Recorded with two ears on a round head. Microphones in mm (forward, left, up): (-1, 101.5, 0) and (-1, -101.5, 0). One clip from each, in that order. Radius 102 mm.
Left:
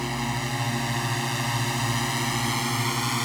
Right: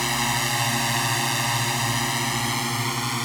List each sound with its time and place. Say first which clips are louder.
0.0 s a drone: right 6 dB; 50° right (ahead or behind); by 3.2 s centre (ahead or behind)